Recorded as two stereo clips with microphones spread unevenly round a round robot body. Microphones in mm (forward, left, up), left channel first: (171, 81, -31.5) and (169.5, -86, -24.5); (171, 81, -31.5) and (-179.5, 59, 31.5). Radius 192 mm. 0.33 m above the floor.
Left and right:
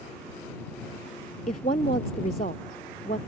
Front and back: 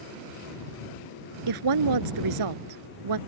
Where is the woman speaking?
160° left.